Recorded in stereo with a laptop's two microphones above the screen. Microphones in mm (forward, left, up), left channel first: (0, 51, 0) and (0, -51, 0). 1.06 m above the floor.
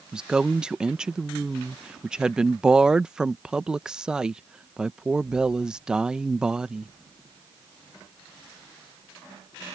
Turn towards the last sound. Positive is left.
turn(degrees=-10)  # may be behind; listen again after turning